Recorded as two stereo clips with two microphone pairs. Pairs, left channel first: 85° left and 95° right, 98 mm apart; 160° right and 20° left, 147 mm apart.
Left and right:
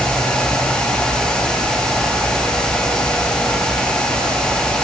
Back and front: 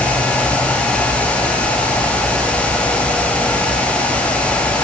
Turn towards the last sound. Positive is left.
No sound to turn to.